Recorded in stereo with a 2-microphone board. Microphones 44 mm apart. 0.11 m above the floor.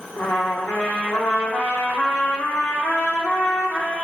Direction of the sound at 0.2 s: 55° left (ahead or behind).